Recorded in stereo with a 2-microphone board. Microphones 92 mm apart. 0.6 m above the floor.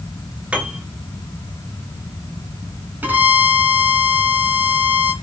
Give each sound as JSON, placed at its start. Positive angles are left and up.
{"t": 0.5, "sound": "a piano", "side_deg": -15, "distance_m": 2.0}
{"t": 3.0, "sound": "a violin", "side_deg": -20, "distance_m": 3.0}